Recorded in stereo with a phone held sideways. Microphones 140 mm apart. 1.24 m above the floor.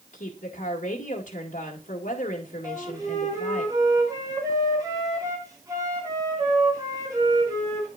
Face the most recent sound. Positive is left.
turn(degrees=-25)  # may be behind; listen again after turning